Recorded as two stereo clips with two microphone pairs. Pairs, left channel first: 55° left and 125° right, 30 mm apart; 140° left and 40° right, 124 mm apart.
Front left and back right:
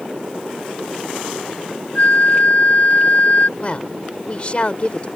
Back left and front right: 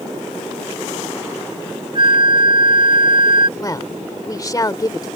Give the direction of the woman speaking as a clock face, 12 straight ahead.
9 o'clock.